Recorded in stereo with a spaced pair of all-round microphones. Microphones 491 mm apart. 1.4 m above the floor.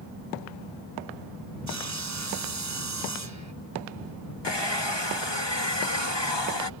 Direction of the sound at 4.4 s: 60° left (ahead or behind).